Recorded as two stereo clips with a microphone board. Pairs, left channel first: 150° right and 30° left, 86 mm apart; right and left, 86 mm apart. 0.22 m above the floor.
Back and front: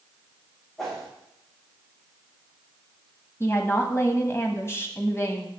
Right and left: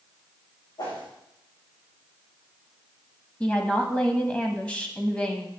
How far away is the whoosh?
About 5.5 m.